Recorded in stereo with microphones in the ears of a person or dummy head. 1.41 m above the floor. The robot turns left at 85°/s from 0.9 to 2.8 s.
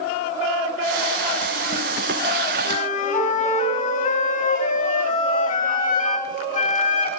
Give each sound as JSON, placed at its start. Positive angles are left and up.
{"t": 2.6, "sound": "a flute", "side_deg": 30, "distance_m": 4.5}